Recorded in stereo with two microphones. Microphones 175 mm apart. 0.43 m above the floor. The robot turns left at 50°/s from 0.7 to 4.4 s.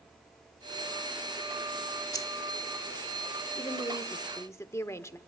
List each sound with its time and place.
2.1 s keys jangling: 25° left (ahead or behind), 1.2 m; by 2.3 s 15° left (ahead or behind), 1.2 m
3.5 s a woman speaking: 25° left (ahead or behind), 0.9 m; by 5.2 s 20° left (ahead or behind), 0.9 m